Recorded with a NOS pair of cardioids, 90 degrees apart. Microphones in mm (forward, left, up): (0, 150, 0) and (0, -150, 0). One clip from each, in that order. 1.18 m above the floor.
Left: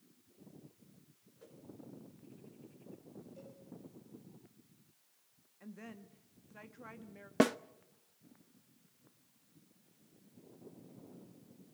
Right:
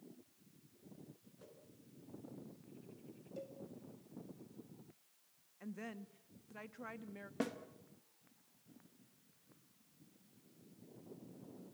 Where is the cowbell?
50° right, 7.5 m.